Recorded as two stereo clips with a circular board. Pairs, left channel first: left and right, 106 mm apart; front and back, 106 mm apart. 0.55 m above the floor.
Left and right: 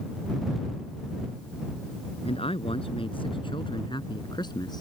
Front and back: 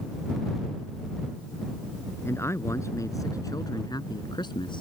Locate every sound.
2.2 s a man speaking: 65° left; by 4.8 s 40° left